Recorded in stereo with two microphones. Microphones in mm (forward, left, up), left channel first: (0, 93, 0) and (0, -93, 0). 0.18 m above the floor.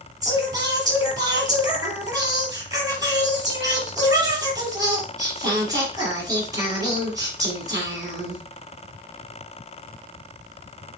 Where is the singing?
20° right (ahead or behind), 4 m.